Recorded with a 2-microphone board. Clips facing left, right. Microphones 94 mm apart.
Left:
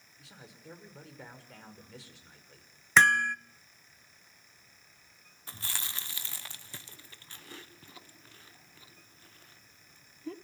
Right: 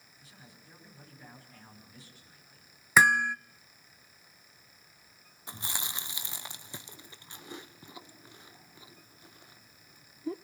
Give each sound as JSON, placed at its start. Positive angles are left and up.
{"t": 0.2, "sound": "a man speaking", "side_deg": 90, "distance_m": 6.0}
{"t": 3.0, "sound": "hammering", "side_deg": -10, "distance_m": 0.6}
{"t": 5.5, "sound": "chewing", "side_deg": -20, "distance_m": 1.0}